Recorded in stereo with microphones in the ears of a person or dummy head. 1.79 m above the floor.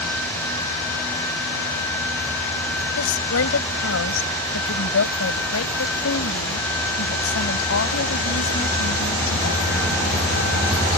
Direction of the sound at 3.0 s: 85° left.